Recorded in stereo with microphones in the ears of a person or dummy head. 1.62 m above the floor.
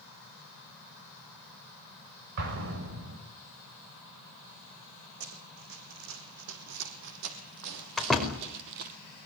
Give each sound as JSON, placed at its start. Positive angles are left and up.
{"t": 2.4, "sound": "an explosion", "side_deg": -50, "distance_m": 6.5}
{"t": 5.2, "sound": "running footsteps", "side_deg": -60, "distance_m": 5.5}
{"t": 8.0, "sound": "a door slam", "side_deg": 5, "distance_m": 4.5}